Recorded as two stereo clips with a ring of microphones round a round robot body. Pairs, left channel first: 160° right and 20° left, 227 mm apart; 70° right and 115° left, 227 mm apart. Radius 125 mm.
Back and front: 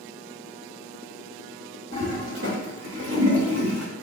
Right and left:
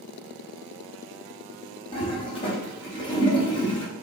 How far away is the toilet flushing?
About 1.3 m.